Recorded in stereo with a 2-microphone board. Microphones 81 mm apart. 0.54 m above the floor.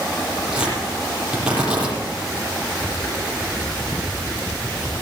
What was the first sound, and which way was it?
Tearing paper, 10° right (ahead or behind).